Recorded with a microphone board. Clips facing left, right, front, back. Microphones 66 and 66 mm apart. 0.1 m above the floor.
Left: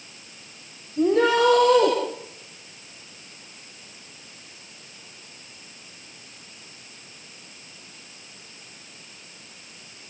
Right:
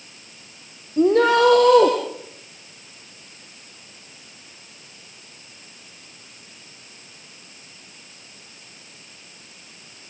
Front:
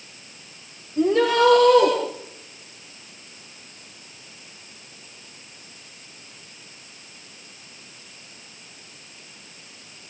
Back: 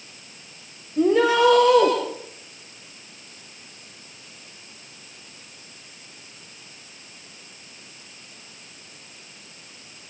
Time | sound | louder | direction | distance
1.0 | a shout | right 3 dB, back 1 dB | 100° right | 4.5 m